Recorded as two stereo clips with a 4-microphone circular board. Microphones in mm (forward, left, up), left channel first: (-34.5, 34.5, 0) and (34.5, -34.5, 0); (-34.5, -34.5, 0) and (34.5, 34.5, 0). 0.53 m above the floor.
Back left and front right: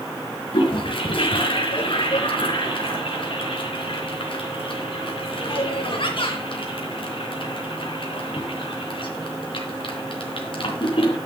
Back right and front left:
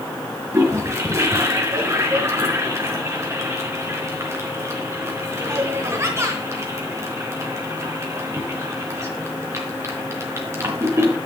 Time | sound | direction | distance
0.5 | a toilet flushing | 105° left | 4 m